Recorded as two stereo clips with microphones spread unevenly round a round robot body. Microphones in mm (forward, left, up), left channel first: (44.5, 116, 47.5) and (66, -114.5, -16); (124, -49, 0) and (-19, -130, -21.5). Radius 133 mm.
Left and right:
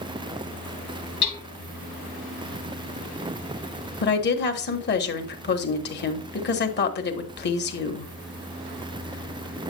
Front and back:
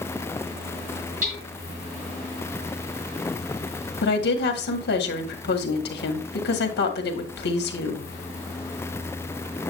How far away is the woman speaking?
About 1.4 m.